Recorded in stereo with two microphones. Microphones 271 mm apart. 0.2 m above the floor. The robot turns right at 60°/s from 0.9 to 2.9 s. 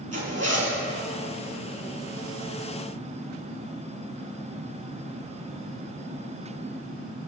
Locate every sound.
0.1 s a zipper: 65° right (ahead or behind), 5 m